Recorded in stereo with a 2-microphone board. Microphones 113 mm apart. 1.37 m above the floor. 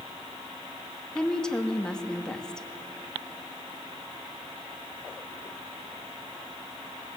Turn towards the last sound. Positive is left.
turn(degrees=5)  # may be behind; listen again after turning